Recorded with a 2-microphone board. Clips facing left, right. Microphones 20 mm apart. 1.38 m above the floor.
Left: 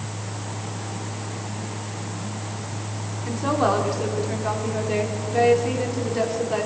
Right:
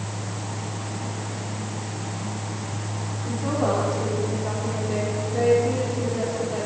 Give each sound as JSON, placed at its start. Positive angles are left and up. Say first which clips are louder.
{"t": 3.2, "sound": "a woman speaking", "louder": "left 3 dB", "side_deg": 30, "distance_m": 4.5}